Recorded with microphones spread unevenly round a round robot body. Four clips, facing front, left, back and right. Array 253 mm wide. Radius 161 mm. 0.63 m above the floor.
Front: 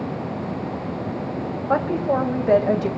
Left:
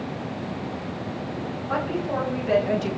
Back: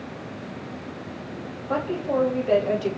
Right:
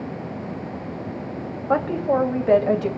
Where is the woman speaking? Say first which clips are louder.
Right 6 dB, front 4 dB; 25° right, 3 m.